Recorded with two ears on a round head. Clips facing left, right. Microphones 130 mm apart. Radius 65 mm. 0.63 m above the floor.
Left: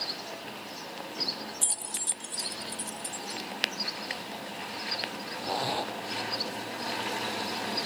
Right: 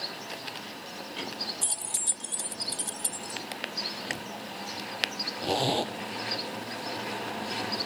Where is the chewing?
50° right (ahead or behind).